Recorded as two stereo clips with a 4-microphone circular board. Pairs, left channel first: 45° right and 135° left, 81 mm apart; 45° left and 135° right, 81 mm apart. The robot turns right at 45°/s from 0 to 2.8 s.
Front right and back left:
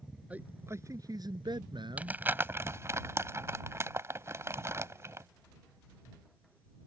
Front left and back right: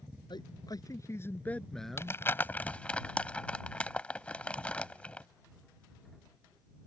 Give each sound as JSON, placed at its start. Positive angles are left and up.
{"t": 0.3, "sound": "a man speaking", "azimuth_deg": 65}
{"t": 2.0, "sound": "crumpling", "azimuth_deg": 75}